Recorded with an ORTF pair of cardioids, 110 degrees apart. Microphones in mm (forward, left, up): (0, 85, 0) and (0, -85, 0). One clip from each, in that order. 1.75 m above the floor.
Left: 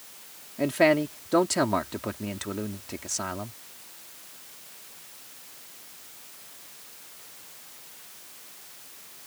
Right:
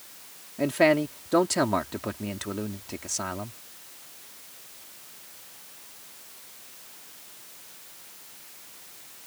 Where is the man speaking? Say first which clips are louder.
Even; straight ahead.